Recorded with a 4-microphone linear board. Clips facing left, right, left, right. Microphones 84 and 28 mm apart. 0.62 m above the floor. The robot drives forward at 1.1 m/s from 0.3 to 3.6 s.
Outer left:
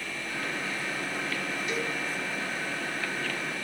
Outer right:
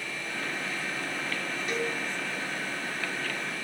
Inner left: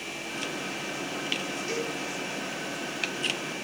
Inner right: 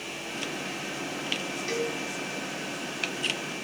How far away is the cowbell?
About 1.9 m.